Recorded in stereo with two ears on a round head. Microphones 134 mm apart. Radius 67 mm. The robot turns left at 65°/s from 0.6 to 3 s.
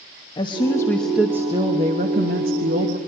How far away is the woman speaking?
About 1.1 m.